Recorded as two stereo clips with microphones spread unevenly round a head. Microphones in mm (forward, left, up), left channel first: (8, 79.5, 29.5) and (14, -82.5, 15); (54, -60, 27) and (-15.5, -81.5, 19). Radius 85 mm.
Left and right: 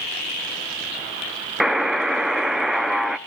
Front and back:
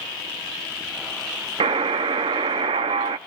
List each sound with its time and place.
1.6 s a buzzer: straight behind, 0.7 m